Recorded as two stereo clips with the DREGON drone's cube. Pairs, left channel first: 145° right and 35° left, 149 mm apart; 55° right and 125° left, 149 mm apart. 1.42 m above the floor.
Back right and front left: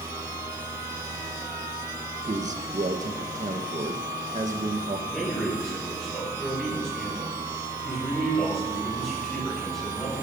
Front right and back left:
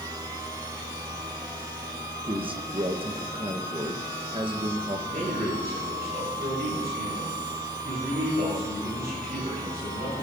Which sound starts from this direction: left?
A man speaking, at 2.3 s.